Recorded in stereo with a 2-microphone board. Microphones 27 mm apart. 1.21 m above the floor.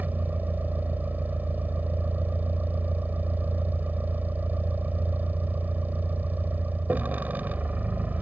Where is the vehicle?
85° right.